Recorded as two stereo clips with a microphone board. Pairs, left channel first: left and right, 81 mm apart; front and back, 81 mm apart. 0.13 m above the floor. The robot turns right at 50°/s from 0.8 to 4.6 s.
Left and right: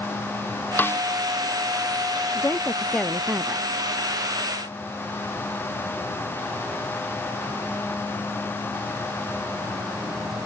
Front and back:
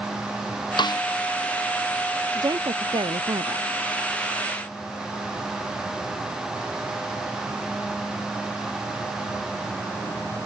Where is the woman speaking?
140° left; by 3.7 s 155° right.